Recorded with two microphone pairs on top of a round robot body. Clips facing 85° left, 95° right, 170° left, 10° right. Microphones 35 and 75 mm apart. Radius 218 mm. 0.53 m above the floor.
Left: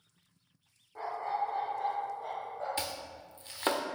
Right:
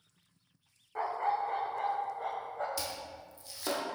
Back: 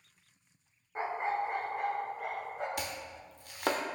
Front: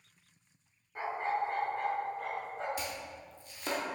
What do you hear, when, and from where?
0.9 s a dog barking: 125° right, 1.0 m; by 2.7 s 110° right, 2 m
2.8 s chopping: 135° left, 0.7 m